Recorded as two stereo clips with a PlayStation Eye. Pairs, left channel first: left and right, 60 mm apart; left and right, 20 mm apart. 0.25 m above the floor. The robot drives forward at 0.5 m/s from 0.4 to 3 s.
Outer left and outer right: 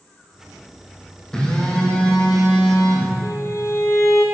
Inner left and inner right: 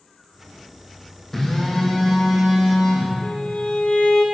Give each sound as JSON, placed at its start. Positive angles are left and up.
{"t": 1.3, "sound": "a phone buzzing", "side_deg": 15, "distance_m": 3.0}
{"t": 3.2, "sound": "a violin", "side_deg": 65, "distance_m": 2.0}